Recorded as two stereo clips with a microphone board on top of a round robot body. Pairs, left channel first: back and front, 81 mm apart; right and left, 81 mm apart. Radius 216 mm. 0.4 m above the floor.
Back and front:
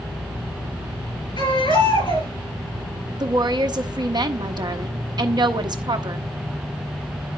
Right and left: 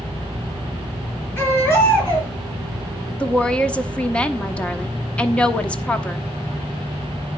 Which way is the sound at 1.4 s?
155° right.